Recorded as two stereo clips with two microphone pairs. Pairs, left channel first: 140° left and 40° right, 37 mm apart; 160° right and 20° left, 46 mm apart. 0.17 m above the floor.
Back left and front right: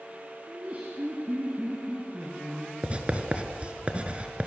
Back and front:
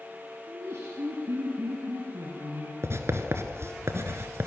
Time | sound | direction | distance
0.5 | laughter | straight ahead | 4.5 m
2.8 | writing | 10° left | 2.0 m